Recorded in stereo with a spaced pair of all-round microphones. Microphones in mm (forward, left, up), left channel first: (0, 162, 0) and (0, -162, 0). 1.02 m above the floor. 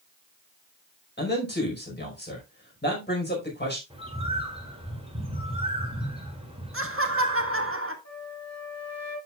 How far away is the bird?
About 2.5 m.